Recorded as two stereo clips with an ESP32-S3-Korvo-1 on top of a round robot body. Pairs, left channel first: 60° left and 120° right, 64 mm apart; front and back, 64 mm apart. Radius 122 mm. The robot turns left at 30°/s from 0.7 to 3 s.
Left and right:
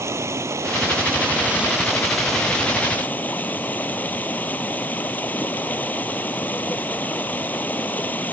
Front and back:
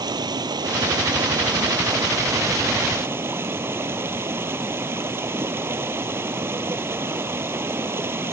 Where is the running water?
165° right; by 8.3 s 125° left.